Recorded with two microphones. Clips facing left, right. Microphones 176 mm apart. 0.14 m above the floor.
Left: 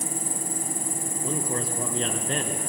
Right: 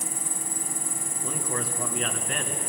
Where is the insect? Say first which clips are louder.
Left 5 dB; 40° right (ahead or behind), 2 m.